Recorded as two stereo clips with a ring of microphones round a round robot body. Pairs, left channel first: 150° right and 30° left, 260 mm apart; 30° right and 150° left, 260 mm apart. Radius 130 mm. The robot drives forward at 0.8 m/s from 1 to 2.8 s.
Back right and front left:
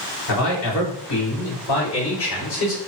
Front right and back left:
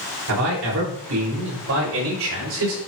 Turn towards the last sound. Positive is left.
turn(degrees=180)